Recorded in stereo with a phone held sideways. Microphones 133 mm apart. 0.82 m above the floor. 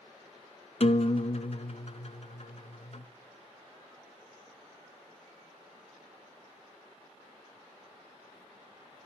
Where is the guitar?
50° left (ahead or behind), 0.9 m.